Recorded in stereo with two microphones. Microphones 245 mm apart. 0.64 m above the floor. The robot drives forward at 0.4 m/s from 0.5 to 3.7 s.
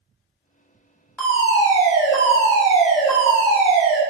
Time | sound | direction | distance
1.2 | a fire alarm | 5° left (ahead or behind) | 1.5 m